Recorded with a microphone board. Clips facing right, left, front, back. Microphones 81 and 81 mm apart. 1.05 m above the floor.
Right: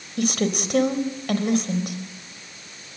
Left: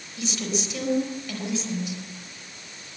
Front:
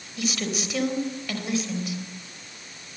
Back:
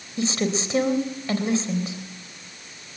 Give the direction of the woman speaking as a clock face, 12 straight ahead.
4 o'clock.